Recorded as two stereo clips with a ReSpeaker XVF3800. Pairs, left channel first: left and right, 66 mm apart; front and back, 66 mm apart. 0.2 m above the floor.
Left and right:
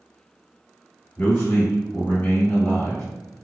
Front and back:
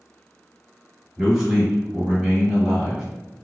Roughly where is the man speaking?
Left.